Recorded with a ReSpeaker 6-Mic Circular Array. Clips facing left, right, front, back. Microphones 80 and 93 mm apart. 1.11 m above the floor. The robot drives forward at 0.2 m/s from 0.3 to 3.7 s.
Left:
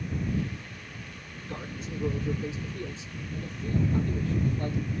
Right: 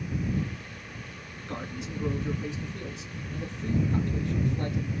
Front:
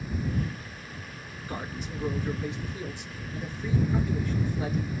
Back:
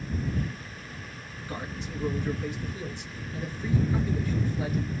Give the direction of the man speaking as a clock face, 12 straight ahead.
3 o'clock.